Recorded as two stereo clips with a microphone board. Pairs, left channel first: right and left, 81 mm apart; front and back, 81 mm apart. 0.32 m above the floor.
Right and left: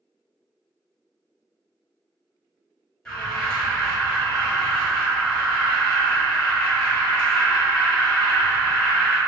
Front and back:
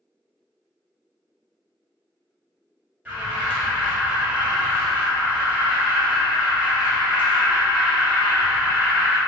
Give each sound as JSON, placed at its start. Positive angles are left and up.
{"t": 3.0, "sound": "an alarm", "azimuth_deg": -145, "distance_m": 1.3}